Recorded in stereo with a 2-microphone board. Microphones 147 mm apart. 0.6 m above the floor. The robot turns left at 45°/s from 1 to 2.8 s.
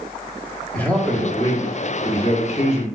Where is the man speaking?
165° left, 1.2 m; by 2.9 s 85° left, 1.2 m.